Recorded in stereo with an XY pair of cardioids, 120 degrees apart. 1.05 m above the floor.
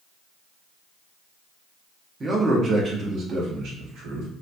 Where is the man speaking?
25° right, 0.9 m; by 4.3 s 65° right, 1.6 m.